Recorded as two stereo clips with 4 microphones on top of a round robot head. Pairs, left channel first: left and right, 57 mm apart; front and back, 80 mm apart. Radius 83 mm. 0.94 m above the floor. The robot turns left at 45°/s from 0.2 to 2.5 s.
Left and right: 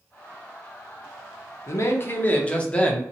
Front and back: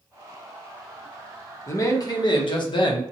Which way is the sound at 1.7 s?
55° left.